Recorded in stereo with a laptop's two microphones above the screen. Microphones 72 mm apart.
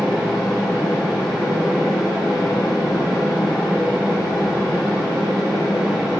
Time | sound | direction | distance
0.0 | a fan | 10° right (ahead or behind) | 2.5 m